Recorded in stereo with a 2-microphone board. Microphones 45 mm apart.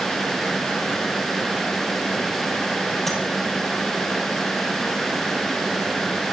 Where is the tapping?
Centre (ahead or behind), 6.5 m.